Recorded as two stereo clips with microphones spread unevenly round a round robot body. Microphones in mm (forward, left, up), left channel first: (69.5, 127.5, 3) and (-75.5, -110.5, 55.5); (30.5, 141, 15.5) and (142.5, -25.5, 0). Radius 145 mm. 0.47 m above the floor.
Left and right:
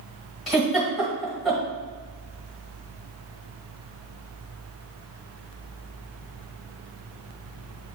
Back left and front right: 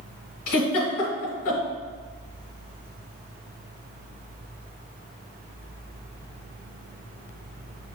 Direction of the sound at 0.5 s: 145° left.